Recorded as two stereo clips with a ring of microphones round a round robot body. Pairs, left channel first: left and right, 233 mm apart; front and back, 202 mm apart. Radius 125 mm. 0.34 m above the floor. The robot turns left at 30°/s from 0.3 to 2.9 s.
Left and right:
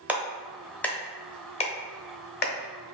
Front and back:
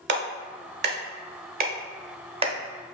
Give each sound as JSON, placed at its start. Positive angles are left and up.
{"t": 0.1, "sound": "a clap", "azimuth_deg": -170, "distance_m": 0.9}